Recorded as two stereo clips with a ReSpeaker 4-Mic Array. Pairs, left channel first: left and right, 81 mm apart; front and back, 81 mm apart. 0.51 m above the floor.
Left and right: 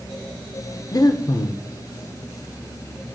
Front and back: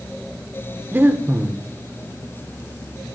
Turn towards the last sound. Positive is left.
turn(degrees=120)